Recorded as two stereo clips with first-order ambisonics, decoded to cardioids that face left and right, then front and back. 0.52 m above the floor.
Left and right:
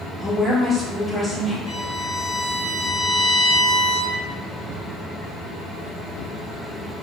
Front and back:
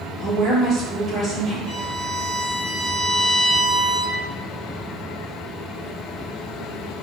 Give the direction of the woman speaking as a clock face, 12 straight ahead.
7 o'clock.